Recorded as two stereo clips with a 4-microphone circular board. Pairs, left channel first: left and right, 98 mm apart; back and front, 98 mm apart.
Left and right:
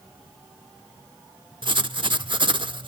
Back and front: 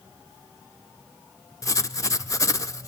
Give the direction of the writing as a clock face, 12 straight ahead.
4 o'clock.